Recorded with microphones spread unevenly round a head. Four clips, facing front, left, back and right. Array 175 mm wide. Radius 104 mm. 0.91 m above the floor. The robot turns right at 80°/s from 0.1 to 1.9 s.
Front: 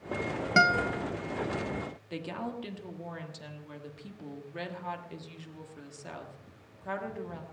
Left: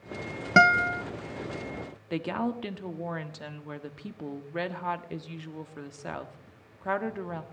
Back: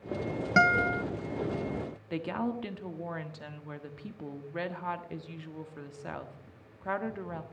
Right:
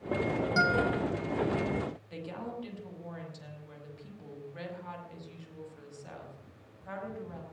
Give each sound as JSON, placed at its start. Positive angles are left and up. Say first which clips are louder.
{"t": 0.6, "sound": "a guitar", "louder": "left 8 dB, back 1 dB", "azimuth_deg": 75, "distance_m": 0.6}
{"t": 2.1, "sound": "a woman speaking", "louder": "left 9 dB, back 5 dB", "azimuth_deg": 95, "distance_m": 1.4}